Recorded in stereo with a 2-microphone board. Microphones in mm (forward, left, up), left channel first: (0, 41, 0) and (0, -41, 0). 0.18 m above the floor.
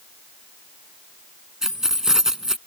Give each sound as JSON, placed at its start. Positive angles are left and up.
{"t": 1.6, "sound": "keys jangling", "side_deg": -5}